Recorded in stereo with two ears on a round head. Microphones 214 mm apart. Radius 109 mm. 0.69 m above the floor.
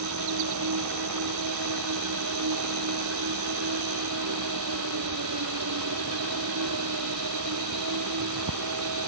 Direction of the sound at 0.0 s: 85° right.